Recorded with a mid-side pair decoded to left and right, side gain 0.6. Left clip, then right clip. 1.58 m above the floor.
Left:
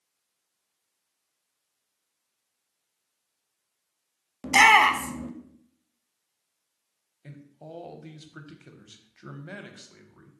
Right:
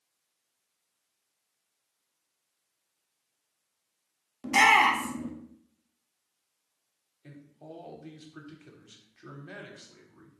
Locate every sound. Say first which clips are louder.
4.4 s a shout: left 4 dB; 30° left, 0.5 m
7.2 s a man speaking: left 2 dB; 25° left, 0.6 m